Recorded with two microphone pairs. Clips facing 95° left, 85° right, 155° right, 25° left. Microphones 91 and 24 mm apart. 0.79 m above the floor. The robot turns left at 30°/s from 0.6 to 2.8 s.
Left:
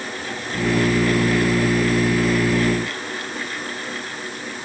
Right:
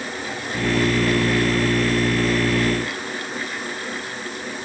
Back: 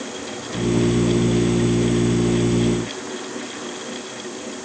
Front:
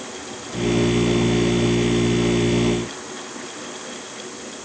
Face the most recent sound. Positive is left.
No sound to turn to.